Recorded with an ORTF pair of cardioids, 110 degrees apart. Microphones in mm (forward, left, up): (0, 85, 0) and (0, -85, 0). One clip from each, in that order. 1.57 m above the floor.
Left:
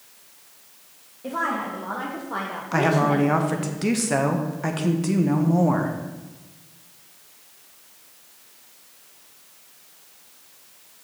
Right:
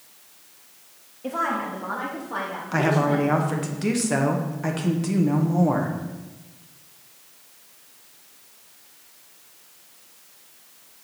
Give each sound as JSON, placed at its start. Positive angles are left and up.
{"t": 1.2, "sound": "a woman speaking", "azimuth_deg": -10, "distance_m": 1.9}
{"t": 2.7, "sound": "a woman speaking", "azimuth_deg": 10, "distance_m": 1.4}